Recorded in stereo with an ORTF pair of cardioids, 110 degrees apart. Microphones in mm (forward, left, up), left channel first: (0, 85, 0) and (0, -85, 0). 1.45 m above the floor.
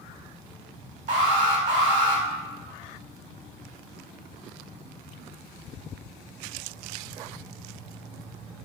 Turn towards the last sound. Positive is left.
turn(degrees=-50)